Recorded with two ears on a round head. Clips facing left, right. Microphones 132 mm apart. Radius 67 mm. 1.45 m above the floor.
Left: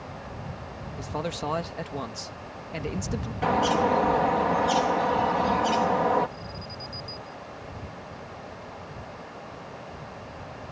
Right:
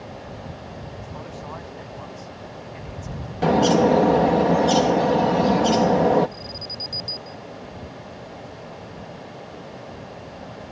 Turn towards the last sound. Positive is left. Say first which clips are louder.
# right 3 dB
turn(degrees=-80)